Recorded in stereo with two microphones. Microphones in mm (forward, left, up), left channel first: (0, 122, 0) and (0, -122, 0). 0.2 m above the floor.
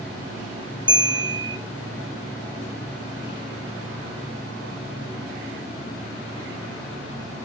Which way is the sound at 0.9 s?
20° right (ahead or behind).